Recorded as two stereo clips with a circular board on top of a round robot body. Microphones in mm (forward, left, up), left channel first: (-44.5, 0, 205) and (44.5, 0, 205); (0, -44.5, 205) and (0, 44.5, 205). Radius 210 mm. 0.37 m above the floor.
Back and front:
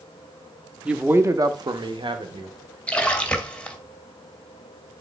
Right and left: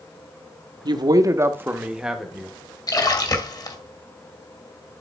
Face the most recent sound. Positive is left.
turn(degrees=-110)